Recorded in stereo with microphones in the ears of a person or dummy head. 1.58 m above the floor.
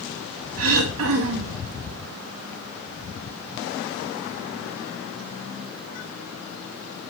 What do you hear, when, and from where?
0.6 s throat clearing: 75° right (ahead or behind), 2.0 m